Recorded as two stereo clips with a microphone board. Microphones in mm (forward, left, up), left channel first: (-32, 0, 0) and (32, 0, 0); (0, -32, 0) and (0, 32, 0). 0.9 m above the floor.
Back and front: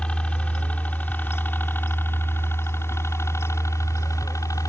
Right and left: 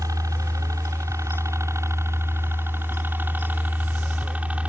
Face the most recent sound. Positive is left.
turn(degrees=160)